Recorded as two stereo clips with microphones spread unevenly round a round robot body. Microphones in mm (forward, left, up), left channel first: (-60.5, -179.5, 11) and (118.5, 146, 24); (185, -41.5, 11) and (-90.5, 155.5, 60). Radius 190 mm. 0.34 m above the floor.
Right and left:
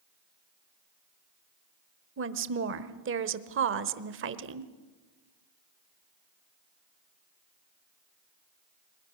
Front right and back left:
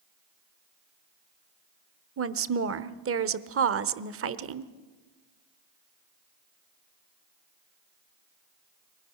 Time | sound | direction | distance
2.2 | a woman speaking | 105° left | 1.1 m